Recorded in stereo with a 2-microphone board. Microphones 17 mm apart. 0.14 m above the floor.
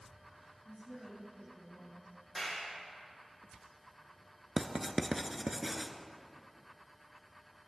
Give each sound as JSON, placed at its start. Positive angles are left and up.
{"t": 0.7, "sound": "a woman speaking", "side_deg": -10, "distance_m": 6.0}
{"t": 2.4, "sound": "a clap", "side_deg": 5, "distance_m": 4.5}
{"t": 4.6, "sound": "writing", "side_deg": -10, "distance_m": 0.8}